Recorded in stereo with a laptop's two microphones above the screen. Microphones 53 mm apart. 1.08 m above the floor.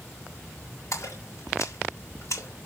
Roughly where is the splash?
Left.